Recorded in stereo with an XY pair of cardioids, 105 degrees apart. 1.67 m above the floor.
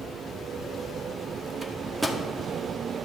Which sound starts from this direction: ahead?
A microwave, at 1.6 s.